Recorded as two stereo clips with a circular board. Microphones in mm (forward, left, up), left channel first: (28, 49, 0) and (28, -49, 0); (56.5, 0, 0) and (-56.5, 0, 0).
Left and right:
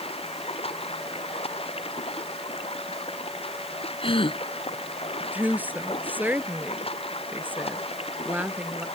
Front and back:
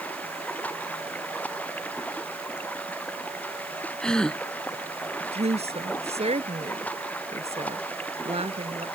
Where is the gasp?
85° left.